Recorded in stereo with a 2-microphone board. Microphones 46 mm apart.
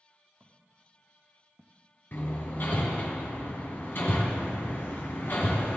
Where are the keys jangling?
I don't hear keys jangling.